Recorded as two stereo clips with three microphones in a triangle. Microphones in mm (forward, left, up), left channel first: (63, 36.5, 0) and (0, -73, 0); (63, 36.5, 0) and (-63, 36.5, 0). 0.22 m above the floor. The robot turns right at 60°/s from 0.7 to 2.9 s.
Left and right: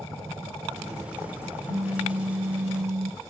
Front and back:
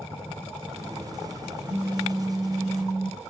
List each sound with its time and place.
1.7 s a phone buzzing: 115° left, 2.5 m; by 3.2 s 175° right, 2.5 m